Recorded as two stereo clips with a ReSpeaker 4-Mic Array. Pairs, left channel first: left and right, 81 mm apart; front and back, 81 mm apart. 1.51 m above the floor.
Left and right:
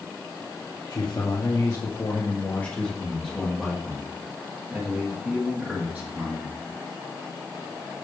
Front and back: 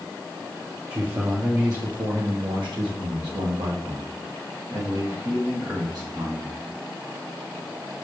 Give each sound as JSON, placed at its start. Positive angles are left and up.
{"t": 0.9, "sound": "a man speaking", "azimuth_deg": 120, "distance_m": 1.3}